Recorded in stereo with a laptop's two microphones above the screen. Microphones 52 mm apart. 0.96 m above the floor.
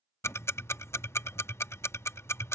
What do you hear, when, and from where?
0.2 s ticking: 55° left (ahead or behind)